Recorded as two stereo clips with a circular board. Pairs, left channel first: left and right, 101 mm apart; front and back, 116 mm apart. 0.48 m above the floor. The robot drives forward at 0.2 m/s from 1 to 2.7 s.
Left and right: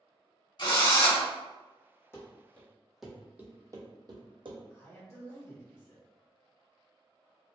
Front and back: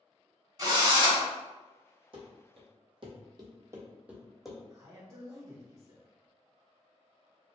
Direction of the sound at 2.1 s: 150° left.